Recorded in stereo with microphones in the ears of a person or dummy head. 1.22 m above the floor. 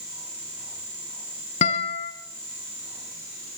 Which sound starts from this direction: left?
A guitar, at 1.6 s.